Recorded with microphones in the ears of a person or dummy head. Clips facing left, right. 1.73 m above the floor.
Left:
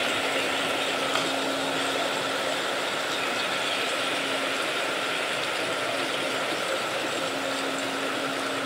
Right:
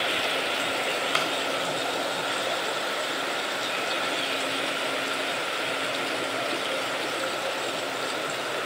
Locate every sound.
1.1 s a clap: 30° right (ahead or behind), 0.6 m